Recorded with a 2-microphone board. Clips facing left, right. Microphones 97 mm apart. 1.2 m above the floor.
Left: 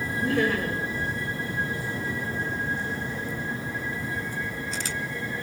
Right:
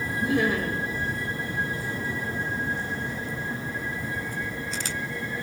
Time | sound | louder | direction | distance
0.2 | laughter | even | 15° right (ahead or behind) | 2.5 m